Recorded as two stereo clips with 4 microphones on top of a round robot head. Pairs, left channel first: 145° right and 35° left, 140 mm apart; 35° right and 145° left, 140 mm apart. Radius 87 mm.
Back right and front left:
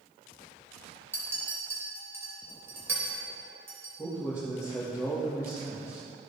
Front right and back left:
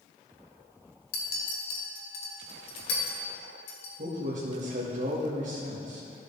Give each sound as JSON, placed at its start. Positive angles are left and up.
{"t": 1.1, "sound": "a clink", "azimuth_deg": -40, "distance_m": 2.5}
{"t": 4.0, "sound": "a man speaking", "azimuth_deg": 110, "distance_m": 1.8}